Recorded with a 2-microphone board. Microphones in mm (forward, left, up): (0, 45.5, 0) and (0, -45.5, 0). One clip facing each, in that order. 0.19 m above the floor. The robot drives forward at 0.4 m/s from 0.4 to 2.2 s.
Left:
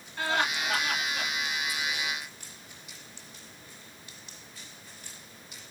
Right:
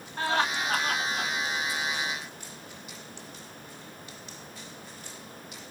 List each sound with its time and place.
0.2 s laughter: 45° right (ahead or behind), 1.4 m